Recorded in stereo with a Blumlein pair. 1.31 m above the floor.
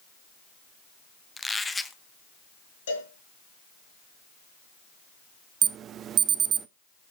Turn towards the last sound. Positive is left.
turn(degrees=-30)